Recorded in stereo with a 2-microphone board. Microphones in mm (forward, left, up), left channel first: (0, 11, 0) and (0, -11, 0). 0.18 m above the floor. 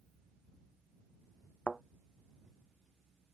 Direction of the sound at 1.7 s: 70° left (ahead or behind).